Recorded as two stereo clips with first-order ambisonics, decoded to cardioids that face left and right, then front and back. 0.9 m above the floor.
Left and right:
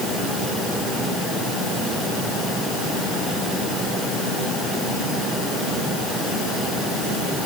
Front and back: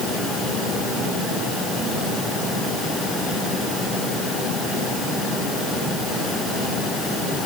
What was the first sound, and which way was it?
Only background noise.